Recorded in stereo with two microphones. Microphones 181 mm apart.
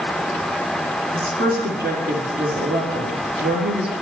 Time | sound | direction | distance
1.1 | a woman speaking | 65° right (ahead or behind) | 3.5 m